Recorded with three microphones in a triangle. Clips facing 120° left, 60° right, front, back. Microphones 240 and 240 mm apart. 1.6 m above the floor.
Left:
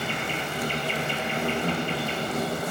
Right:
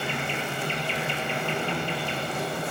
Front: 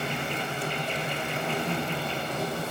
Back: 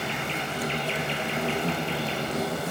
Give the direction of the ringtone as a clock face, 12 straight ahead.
I don't hear a ringtone.